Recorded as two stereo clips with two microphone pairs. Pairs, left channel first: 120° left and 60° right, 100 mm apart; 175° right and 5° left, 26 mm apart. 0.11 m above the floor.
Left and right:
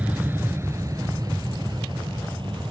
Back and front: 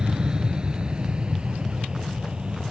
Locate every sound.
0.0 s an aircraft: straight ahead; by 2.7 s 40° right